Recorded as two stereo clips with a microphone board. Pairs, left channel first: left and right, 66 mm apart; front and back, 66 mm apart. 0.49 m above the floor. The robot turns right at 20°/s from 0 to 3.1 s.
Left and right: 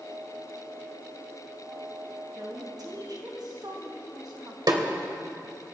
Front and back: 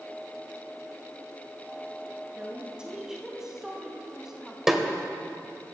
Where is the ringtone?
I don't hear a ringtone.